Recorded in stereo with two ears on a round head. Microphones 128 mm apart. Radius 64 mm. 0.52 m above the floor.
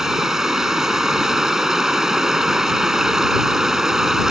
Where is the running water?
5° right (ahead or behind).